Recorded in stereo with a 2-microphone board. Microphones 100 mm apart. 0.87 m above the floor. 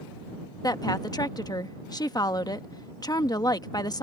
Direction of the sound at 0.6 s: 40° left (ahead or behind).